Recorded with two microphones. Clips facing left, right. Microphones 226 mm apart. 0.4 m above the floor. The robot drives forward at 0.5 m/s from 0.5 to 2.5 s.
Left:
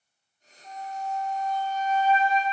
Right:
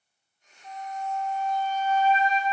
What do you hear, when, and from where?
0.6 s a flute: 25° left (ahead or behind), 2 m; by 2.4 s 20° left (ahead or behind), 3 m